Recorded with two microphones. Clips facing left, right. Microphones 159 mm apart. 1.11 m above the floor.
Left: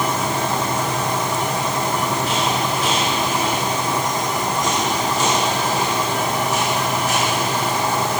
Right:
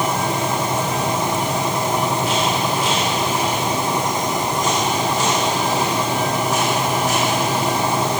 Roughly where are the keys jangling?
No keys jangling in this recording.